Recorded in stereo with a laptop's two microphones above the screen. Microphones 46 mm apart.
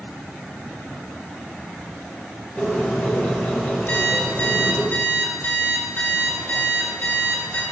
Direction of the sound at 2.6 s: 35° left (ahead or behind).